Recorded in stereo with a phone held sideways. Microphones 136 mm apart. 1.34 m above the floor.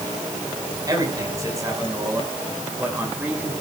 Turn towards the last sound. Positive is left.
turn(degrees=-10)  # may be behind; listen again after turning